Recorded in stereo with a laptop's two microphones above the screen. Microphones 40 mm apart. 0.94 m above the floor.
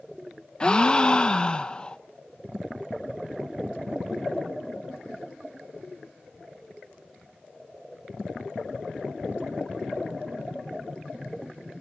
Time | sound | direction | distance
0.6 | a gasp | 25° left (ahead or behind) | 0.7 m